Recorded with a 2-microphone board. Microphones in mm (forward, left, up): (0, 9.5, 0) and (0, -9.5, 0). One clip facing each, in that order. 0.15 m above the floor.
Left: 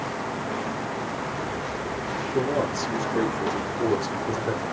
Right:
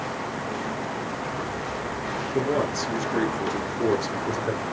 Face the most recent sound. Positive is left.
turn(degrees=-25)  # may be behind; listen again after turning